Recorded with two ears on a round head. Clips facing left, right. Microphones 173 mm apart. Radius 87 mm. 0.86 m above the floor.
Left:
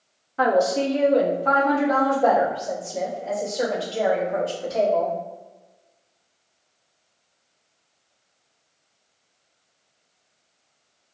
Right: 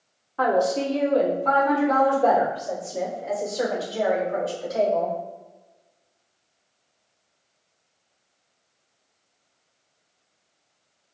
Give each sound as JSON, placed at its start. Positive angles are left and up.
{"t": 0.4, "sound": "a woman speaking", "side_deg": 25, "distance_m": 1.1}